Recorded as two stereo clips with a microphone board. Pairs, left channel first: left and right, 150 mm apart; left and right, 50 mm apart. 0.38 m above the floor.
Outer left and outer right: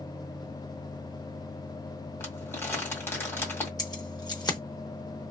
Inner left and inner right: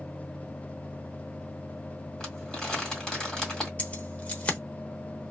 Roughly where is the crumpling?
Centre.